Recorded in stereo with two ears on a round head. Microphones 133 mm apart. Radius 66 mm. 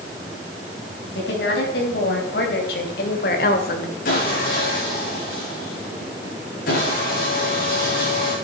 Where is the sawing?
60° left (ahead or behind), 7 m.